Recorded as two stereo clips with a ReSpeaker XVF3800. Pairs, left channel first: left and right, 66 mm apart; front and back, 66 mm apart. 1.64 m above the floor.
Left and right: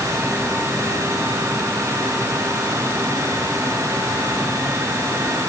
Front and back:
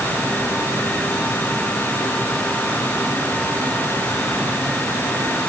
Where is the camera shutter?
No camera shutter in this recording.